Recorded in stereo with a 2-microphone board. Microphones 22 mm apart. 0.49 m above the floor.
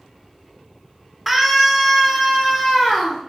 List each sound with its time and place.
1.3 s a scream: 10° right (ahead or behind), 1.1 m; by 3.2 s centre (ahead or behind), 1.3 m